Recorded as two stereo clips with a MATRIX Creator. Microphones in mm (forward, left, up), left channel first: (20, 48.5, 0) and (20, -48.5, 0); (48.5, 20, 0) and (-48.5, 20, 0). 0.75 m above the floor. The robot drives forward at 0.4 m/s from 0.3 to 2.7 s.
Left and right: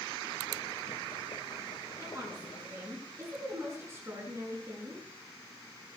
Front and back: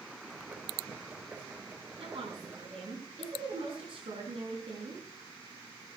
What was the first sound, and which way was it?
A woman speaking, 150° right.